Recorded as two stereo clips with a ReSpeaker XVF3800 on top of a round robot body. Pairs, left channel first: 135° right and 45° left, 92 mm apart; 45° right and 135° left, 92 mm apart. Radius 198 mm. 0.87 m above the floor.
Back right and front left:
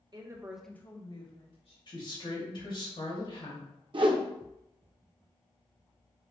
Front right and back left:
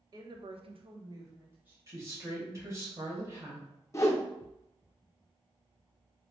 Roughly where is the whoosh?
Ahead.